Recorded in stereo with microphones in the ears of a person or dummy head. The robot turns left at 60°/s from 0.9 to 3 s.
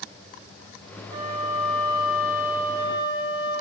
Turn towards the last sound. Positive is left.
turn(degrees=125)